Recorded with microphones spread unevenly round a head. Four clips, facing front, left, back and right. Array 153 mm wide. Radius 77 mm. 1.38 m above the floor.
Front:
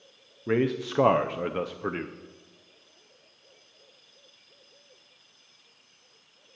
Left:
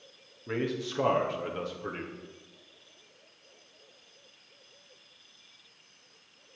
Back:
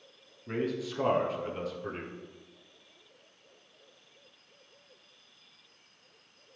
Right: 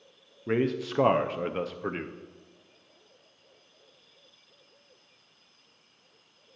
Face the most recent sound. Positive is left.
turn(degrees=-25)